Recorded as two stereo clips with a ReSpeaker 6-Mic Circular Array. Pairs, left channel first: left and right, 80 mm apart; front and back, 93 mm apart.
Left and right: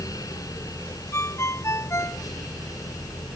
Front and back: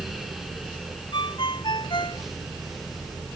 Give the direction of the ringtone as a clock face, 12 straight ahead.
11 o'clock.